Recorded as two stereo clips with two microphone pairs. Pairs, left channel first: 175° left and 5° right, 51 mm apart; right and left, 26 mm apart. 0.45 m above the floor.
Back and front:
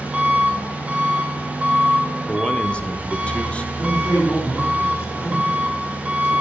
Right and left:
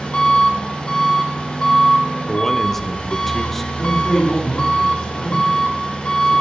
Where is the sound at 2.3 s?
155° right, 0.8 m.